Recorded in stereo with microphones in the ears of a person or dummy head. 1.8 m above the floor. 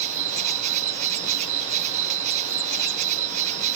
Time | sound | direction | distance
0.0 | an insect | 45° right (ahead or behind) | ?